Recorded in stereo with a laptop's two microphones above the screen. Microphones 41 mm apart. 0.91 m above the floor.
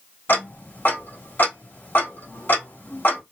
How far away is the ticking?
About 1.6 m.